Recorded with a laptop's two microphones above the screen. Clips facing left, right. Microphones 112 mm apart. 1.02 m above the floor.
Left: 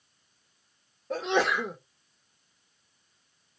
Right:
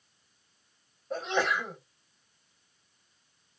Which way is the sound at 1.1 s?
75° left (ahead or behind).